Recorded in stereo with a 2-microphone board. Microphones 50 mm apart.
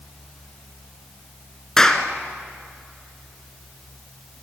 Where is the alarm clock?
No alarm clock in this recording.